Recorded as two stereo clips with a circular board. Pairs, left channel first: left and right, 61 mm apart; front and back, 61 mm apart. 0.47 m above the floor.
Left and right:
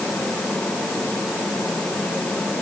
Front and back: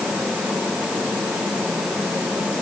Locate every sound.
Only background noise.